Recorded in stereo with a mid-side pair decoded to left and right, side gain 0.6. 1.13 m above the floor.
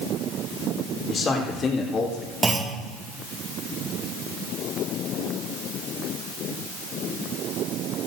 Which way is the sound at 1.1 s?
35° left.